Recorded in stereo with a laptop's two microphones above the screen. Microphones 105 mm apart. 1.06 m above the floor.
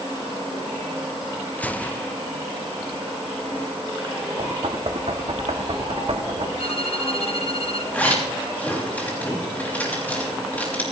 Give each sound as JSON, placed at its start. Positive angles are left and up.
{"t": 1.6, "sound": "a gunshot", "side_deg": 15, "distance_m": 0.5}
{"t": 4.4, "sound": "knocking", "side_deg": -65, "distance_m": 1.1}
{"t": 6.6, "sound": "a violin", "side_deg": 65, "distance_m": 1.8}
{"t": 7.9, "sound": "a zipper", "side_deg": 15, "distance_m": 5.0}